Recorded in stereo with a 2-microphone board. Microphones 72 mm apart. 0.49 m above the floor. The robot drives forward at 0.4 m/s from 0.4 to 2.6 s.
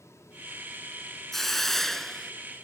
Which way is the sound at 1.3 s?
5° left (ahead or behind).